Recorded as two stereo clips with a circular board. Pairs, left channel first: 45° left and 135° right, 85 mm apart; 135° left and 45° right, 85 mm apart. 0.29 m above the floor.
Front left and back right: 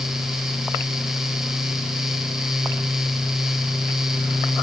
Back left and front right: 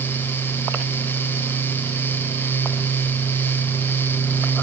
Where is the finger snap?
I don't hear a finger snap.